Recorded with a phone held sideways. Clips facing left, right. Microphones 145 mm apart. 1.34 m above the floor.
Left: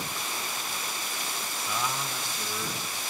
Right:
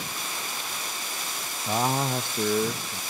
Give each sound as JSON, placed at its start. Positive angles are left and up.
{"t": 1.7, "sound": "a man speaking", "side_deg": -40, "distance_m": 0.6}